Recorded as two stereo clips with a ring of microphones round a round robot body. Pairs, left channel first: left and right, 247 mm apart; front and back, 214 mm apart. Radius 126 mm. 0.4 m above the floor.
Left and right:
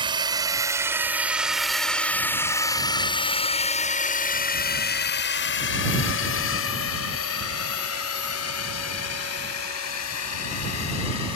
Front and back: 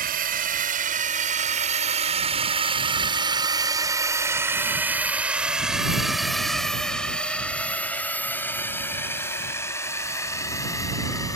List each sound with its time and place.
0.0 s a drone: 155° right; by 11.4 s 75° left